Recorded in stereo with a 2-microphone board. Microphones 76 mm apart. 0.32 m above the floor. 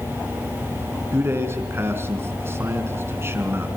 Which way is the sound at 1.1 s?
30° right (ahead or behind).